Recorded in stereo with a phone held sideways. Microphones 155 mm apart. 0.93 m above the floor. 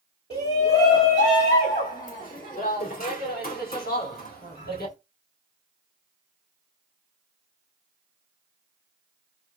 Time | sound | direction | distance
0.3 | a shout | 40° left (ahead or behind) | 2.0 m